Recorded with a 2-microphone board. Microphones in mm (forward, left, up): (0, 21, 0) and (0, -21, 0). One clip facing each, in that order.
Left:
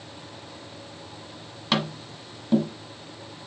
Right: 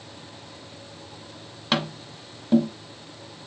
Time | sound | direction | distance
1.7 | tapping | 5° right (ahead or behind) | 0.8 m